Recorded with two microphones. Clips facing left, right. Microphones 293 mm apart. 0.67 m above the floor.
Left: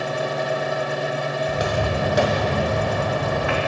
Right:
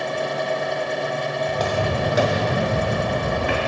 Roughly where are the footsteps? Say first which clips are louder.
Right 1 dB; centre.